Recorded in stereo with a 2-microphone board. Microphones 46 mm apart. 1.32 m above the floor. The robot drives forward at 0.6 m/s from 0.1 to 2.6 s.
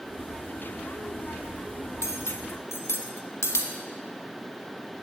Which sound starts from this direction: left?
Cutlery clinking, at 2.0 s.